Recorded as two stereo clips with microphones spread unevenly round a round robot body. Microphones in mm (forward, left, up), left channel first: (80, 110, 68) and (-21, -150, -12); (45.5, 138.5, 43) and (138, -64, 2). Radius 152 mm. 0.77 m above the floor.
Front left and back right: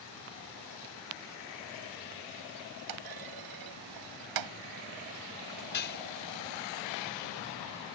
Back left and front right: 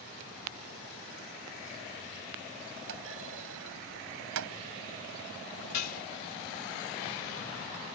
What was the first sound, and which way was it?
A clunk, 115° right.